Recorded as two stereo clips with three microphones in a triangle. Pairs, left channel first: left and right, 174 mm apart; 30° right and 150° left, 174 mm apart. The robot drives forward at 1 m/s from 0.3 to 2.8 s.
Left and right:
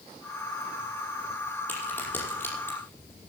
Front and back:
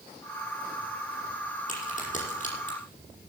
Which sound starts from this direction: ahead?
A crack, at 1.7 s.